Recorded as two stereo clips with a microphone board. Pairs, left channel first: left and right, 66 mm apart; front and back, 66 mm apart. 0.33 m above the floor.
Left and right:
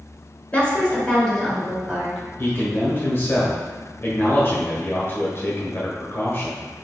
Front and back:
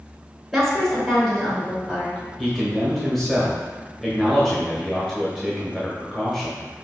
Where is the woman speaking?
90° left, 1.2 m; by 2.2 s 45° right, 1.3 m.